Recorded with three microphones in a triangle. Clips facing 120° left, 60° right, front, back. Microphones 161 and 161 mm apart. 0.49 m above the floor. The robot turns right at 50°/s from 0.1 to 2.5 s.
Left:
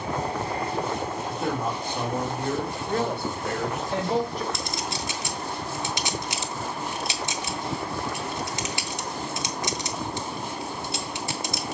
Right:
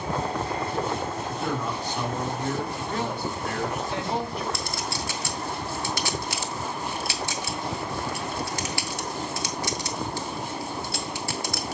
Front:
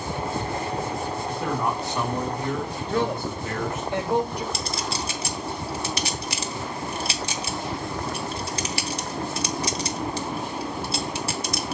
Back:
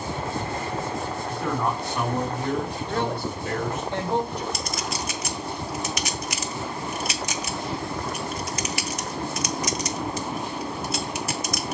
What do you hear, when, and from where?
1.3 s a man speaking: 60° left, 2.5 m; by 3.9 s 120° left, 2.5 m
2.9 s a woman speaking: 75° left, 1.6 m
4.5 s a clink: 55° left, 0.9 m